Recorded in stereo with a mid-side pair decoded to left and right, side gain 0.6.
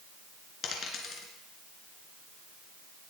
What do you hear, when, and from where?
0.6 s a dropped coin: 45° left, 3 m